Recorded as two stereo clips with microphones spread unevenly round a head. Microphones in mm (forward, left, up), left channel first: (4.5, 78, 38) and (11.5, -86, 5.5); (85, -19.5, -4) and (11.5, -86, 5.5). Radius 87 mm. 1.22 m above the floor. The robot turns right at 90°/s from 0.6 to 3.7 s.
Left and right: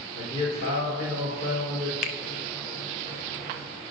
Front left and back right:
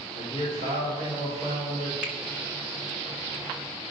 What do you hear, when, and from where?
0.1 s a man speaking: 25° left, 3 m; by 1.9 s 145° left, 3 m
2.0 s a finger snap: 135° left, 0.5 m; by 2.2 s 150° left, 0.5 m